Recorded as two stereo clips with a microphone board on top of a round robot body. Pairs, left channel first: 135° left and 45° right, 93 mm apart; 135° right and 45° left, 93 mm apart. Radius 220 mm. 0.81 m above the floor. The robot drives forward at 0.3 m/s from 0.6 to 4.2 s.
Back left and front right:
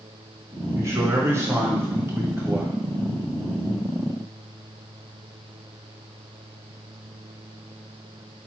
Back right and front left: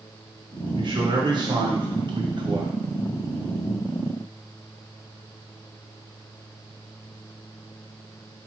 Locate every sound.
0.8 s a man speaking: 10° left, 1.7 m; by 2.8 s 20° left, 1.3 m